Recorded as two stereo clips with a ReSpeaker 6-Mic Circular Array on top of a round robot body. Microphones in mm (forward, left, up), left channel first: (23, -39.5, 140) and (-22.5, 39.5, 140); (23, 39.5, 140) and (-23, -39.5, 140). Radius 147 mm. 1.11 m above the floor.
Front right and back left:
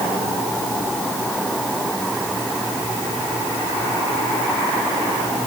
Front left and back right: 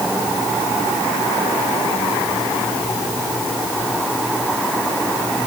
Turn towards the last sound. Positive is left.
No sound to turn to.